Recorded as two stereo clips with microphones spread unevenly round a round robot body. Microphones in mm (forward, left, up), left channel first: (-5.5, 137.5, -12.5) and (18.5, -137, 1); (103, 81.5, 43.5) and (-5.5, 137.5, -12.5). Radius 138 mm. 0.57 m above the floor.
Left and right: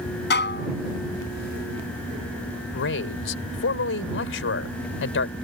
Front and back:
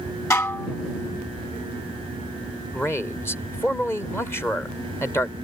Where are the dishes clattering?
40° left.